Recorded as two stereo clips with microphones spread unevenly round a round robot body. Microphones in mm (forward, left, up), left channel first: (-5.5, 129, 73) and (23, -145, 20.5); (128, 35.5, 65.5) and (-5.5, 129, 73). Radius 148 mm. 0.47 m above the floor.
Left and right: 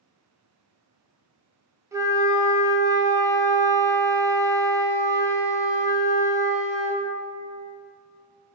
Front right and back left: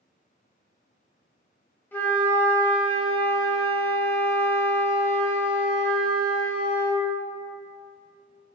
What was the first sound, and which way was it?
A flute, 85° right.